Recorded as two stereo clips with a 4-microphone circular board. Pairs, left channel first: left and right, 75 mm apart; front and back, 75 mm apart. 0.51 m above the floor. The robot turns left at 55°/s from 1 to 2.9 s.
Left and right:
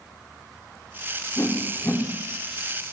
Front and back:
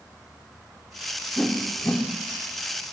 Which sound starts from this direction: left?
A whoosh, at 1.4 s.